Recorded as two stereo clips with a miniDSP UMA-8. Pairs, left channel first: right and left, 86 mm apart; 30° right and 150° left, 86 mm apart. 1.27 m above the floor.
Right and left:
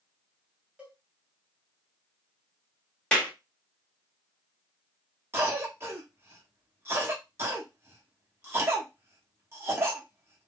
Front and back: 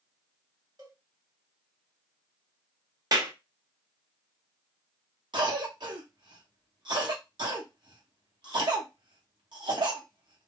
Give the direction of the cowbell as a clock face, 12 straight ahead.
7 o'clock.